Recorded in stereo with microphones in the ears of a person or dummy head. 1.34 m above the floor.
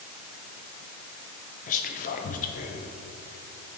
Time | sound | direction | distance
1.7 | whispering | 40° left (ahead or behind) | 0.6 m